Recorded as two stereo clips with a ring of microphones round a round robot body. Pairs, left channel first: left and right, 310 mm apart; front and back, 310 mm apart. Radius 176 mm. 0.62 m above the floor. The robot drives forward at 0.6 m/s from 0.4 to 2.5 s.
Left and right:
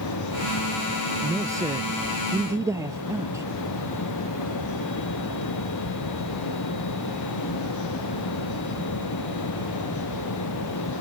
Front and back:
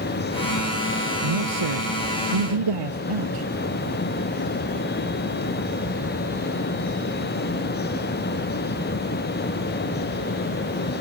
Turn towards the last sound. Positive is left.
turn(degrees=-170)